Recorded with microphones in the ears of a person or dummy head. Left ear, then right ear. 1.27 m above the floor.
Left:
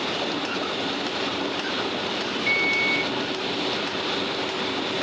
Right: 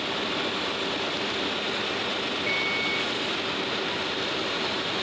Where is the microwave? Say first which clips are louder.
Left 6 dB; 10° left (ahead or behind), 0.6 m.